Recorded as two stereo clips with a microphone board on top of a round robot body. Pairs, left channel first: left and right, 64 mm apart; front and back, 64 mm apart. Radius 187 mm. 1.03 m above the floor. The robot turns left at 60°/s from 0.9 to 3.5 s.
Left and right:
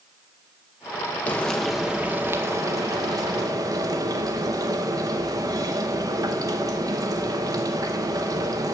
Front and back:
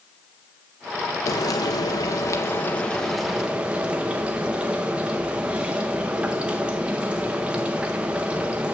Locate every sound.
1.3 s frying: 25° left, 0.6 m; by 8.7 s 110° right, 0.6 m